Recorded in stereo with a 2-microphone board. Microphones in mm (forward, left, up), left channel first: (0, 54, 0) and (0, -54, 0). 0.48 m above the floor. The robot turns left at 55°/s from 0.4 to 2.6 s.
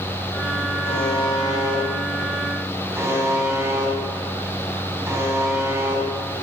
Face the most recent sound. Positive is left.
turn(degrees=-25)